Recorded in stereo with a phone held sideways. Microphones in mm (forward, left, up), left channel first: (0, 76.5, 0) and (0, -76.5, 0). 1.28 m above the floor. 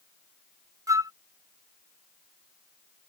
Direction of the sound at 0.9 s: 20° right (ahead or behind).